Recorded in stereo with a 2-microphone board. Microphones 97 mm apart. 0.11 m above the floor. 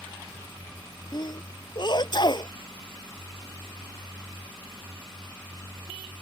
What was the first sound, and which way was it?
A sneeze, 50° left (ahead or behind).